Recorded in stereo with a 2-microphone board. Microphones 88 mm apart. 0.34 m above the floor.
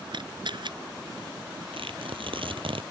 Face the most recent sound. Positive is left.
turn(degrees=-80)